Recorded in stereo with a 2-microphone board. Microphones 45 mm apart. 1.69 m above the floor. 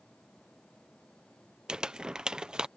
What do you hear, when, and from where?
1.7 s crumpling: 20° right (ahead or behind)